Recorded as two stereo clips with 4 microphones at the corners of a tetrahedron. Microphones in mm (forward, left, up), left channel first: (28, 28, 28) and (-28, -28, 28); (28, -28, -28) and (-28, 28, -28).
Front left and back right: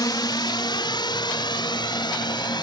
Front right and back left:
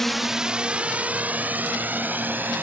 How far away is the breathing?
I don't hear breathing.